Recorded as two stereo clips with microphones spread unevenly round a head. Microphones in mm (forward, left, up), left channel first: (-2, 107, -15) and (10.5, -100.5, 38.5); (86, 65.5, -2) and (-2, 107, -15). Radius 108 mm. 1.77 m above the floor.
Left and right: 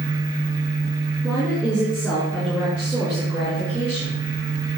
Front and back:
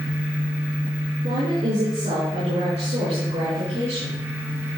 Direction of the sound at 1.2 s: Straight behind.